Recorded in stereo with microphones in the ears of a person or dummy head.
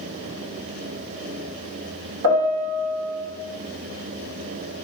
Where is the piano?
65° right (ahead or behind), 1.2 m.